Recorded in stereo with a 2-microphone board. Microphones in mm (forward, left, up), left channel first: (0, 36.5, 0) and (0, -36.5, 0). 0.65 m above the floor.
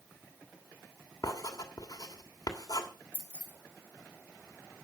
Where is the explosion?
I don't hear an explosion.